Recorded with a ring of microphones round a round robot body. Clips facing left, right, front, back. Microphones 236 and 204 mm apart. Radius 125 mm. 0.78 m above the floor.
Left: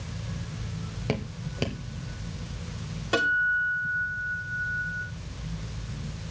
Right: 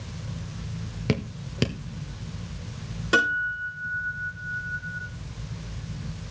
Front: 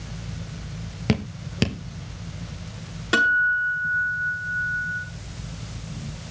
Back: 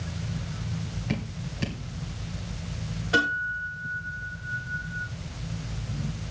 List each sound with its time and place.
1.1 s dripping: 25° right, 1.0 m
3.1 s a guitar: 25° right, 6 m